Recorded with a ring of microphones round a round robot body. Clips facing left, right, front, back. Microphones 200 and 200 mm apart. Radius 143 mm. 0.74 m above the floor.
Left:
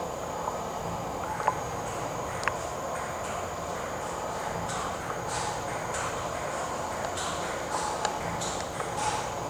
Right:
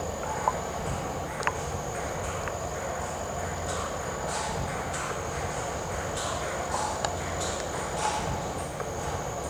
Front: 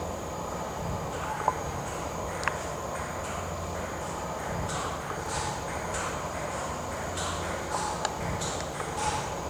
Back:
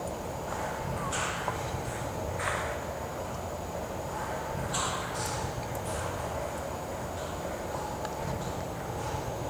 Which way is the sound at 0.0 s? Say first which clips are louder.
Right 2 dB, front 1 dB; 20° right.